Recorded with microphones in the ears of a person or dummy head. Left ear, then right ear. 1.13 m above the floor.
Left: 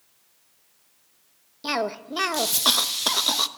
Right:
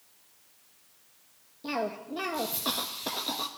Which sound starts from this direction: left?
A cough, at 1.6 s.